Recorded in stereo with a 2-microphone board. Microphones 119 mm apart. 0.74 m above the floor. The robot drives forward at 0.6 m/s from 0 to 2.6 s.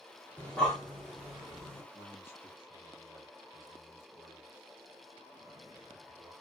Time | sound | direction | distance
0.4 | breathing | 10° left (ahead or behind) | 1.3 m
1.9 | a man speaking | 25° left (ahead or behind) | 1.5 m